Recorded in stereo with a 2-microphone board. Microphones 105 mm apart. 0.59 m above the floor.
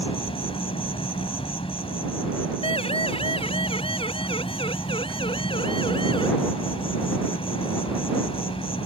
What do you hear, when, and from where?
0.0 s an insect: 60° left (ahead or behind)
2.6 s a siren: 65° left (ahead or behind); by 6.3 s 55° left (ahead or behind)